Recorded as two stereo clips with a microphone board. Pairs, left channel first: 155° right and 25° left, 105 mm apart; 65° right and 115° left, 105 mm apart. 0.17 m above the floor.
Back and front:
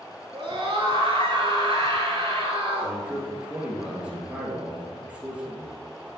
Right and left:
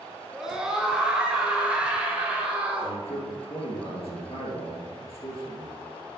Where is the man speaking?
55° right, 3 m.